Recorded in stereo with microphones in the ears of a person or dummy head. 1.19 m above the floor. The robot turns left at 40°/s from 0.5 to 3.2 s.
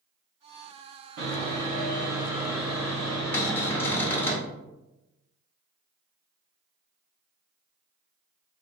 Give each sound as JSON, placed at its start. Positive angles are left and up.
{"t": 1.2, "sound": "sawing", "azimuth_deg": -120, "distance_m": 1.7}
{"t": 3.3, "sound": "a cupboard door", "side_deg": 10, "distance_m": 0.7}